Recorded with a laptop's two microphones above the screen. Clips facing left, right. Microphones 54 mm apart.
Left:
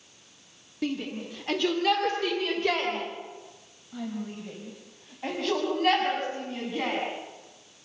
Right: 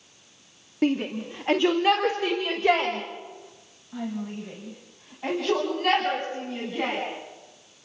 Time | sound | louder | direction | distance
0.8 | a shout | right 7 dB | 40° right (ahead or behind) | 2.5 m